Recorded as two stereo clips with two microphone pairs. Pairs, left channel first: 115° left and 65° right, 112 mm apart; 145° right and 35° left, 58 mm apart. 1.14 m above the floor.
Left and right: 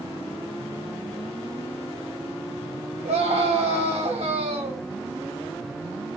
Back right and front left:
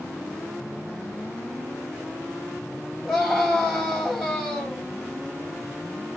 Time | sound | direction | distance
3.0 | a scream | 55° right | 3 m